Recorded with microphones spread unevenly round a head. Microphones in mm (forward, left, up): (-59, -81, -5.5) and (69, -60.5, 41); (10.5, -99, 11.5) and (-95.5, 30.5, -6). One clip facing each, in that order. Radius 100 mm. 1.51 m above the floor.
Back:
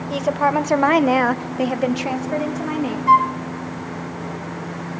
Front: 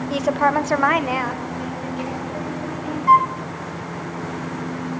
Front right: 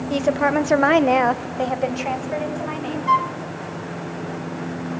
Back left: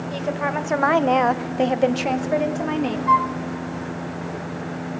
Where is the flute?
105° right, 0.6 m.